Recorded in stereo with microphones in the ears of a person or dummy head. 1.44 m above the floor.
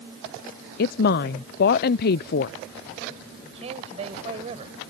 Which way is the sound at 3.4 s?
30° right (ahead or behind).